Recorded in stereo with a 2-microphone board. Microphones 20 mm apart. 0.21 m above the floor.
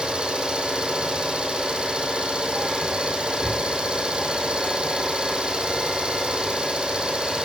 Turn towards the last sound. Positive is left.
turn(degrees=-50)  # may be behind; listen again after turning